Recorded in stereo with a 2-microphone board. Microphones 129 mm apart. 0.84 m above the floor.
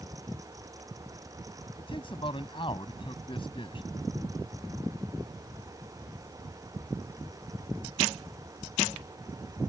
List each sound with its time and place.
1.8 s a man speaking: 40° left (ahead or behind)